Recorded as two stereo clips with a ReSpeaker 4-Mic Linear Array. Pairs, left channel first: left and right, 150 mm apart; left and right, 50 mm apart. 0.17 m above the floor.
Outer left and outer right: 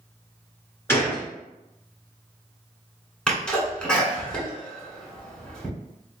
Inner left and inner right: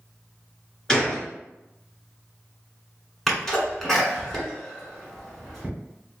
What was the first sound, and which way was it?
A gunshot, 15° left (ahead or behind).